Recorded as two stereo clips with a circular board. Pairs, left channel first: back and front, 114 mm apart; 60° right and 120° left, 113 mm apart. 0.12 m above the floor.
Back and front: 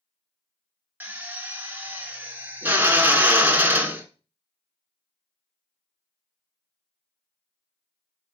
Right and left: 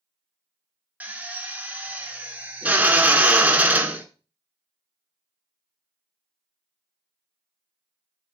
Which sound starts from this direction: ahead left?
A drill, at 1.0 s.